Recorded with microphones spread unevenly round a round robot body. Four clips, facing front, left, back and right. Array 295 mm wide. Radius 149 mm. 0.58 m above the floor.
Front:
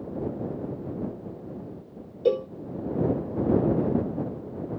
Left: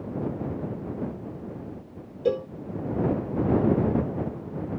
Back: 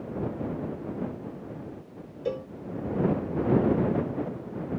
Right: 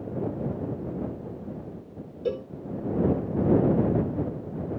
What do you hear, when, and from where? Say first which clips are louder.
2.2 s a cowbell: left 5 dB, front 8 dB; 20° left